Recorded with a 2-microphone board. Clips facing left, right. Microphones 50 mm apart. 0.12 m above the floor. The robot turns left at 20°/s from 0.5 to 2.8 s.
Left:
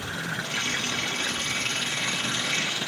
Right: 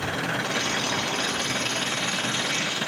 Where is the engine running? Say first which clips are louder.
Right 4 dB; 110° right; by 2.9 s 155° right.